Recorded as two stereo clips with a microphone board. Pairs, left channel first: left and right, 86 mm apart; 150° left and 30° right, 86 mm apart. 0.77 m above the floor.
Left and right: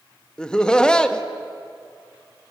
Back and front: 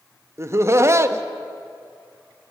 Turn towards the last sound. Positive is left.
turn(degrees=15)